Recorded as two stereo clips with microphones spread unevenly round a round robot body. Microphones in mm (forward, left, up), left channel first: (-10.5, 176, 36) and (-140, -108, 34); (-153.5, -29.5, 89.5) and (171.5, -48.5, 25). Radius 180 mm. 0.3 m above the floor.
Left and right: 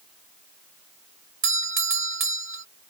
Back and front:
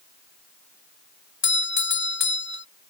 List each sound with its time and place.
1.4 s a doorbell: 130° right